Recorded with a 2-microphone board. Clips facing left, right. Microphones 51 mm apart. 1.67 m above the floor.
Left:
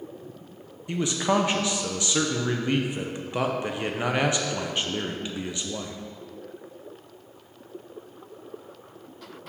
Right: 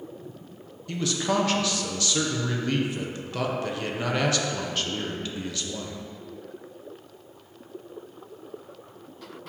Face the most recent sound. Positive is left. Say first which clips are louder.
# left 2 dB
turn(degrees=20)  # may be behind; listen again after turning